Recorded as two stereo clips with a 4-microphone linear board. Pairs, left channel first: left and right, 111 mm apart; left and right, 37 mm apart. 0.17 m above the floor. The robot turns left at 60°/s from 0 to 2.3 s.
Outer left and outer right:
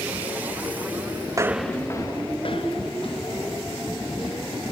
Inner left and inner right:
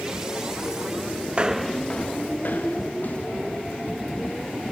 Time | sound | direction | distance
1.3 | footsteps | 40° right (ahead or behind) | 0.5 m